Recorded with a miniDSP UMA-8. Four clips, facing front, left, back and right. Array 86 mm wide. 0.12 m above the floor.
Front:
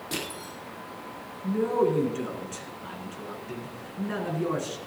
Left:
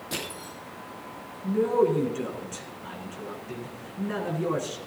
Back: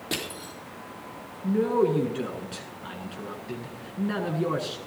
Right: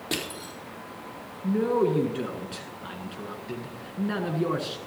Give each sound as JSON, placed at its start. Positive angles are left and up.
{"t": 0.1, "sound": "crushing", "azimuth_deg": -120, "distance_m": 4.0}
{"t": 1.4, "sound": "a man speaking", "azimuth_deg": -125, "distance_m": 1.4}